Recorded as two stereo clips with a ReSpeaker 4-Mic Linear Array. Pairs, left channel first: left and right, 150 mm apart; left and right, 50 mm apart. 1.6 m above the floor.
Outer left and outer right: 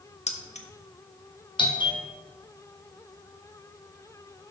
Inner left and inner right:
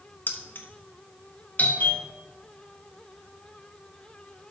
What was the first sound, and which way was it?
Keys jangling, 50° left (ahead or behind).